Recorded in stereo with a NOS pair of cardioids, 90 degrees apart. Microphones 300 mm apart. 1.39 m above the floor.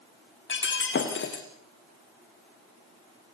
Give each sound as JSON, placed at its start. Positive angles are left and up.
{"t": 0.5, "sound": "breaking glass", "azimuth_deg": 40, "distance_m": 5.5}